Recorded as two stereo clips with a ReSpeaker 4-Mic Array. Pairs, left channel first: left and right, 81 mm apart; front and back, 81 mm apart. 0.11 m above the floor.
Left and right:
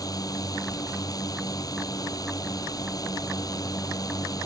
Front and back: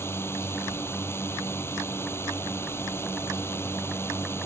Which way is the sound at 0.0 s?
55° left.